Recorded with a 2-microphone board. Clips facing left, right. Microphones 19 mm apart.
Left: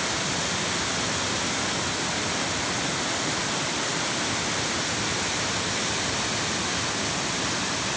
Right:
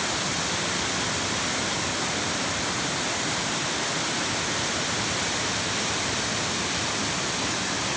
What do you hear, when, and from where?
Only background noise.